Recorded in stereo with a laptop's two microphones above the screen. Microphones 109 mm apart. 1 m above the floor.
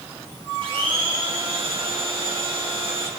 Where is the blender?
55° right (ahead or behind), 1.5 m.